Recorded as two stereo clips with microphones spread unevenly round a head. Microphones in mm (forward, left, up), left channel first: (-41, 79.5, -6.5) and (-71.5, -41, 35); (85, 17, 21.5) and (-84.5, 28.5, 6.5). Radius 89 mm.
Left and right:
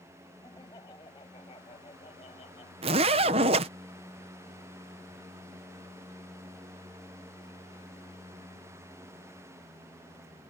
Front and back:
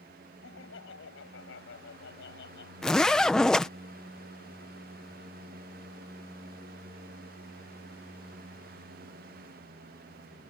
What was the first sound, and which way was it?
Laughter, straight ahead.